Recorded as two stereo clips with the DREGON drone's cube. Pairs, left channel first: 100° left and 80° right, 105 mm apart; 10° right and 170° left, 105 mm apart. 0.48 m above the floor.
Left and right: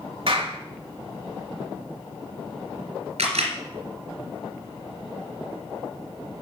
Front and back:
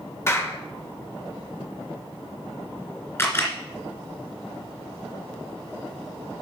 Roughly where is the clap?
Right.